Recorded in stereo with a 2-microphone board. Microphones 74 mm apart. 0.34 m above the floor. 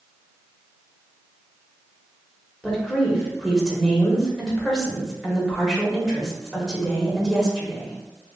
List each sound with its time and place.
2.6 s a woman speaking: 5° left (ahead or behind), 1.0 m